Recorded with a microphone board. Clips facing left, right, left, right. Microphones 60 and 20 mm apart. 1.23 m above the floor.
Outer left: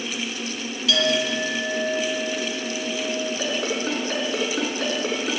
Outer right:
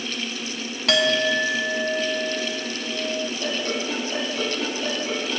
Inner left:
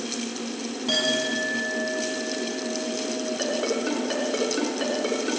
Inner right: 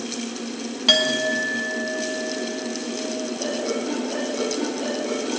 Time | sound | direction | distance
0.9 | a clink | 60° right (ahead or behind) | 1.8 m
3.4 | a ringtone | 75° left (ahead or behind) | 6 m